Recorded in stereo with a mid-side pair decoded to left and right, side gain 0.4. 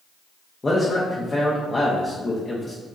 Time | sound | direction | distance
0.6 | a man speaking | 30° left | 1.1 m